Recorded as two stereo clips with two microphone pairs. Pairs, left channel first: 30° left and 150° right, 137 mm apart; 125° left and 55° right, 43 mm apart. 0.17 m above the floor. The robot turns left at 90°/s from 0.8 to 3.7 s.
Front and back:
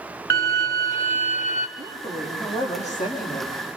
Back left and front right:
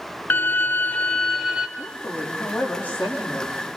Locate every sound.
0.3 s a violin: 100° left, 1.9 m; by 1.7 s 20° left, 1.9 m
1.8 s a woman speaking: 165° left, 7.5 m; by 3.7 s 5° right, 7.5 m